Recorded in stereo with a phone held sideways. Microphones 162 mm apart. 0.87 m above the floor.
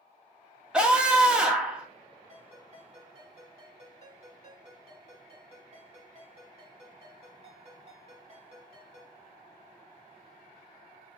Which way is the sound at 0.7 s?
5° right (ahead or behind).